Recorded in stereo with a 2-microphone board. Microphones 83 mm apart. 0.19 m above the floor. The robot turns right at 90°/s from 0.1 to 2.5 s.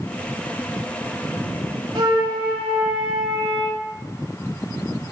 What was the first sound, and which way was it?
A flute, 90° right.